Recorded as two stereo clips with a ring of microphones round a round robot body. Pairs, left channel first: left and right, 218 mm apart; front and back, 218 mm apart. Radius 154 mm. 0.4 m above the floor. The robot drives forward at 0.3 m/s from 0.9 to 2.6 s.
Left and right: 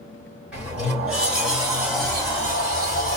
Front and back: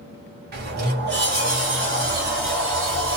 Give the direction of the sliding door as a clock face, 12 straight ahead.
6 o'clock.